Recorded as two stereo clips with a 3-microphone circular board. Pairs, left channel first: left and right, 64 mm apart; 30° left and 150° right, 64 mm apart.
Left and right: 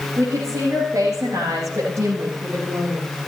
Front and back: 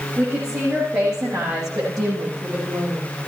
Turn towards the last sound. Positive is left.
turn(degrees=-130)